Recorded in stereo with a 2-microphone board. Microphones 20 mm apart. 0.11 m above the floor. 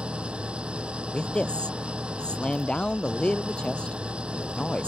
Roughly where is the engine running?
Right.